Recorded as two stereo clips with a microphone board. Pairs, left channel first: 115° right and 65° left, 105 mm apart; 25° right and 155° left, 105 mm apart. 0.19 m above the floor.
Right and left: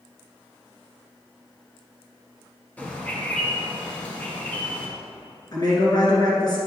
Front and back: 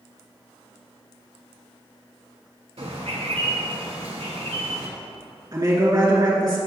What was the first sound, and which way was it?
A bird, 170° left.